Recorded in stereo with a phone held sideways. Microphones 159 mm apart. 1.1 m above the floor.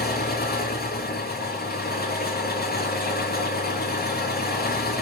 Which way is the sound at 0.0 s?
85° left.